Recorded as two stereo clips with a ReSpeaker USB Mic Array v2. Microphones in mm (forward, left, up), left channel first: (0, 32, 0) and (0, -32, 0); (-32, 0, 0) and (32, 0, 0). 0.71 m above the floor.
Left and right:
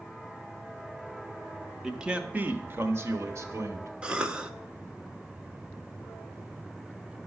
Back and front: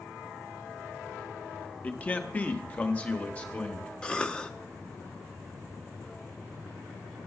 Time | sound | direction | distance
1.8 | a man speaking | 165° right | 0.8 m
4.0 | a cough | 140° right | 0.7 m